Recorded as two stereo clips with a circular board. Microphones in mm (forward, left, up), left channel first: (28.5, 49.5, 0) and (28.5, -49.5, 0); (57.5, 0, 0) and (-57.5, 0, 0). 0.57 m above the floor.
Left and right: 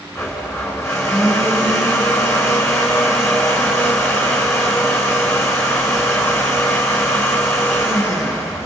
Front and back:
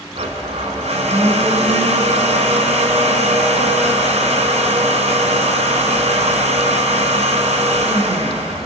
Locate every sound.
0.1 s a blender: 155° left, 3.5 m